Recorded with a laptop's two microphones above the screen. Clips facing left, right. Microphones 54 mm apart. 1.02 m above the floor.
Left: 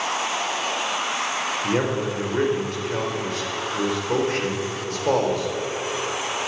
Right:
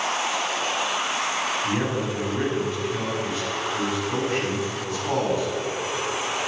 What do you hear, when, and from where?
1.6 s a man speaking: 65° left (ahead or behind), 5 m